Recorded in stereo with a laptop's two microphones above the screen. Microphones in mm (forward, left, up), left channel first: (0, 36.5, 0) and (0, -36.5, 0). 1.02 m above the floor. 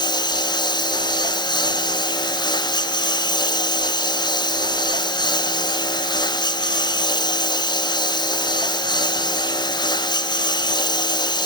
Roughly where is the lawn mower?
Left.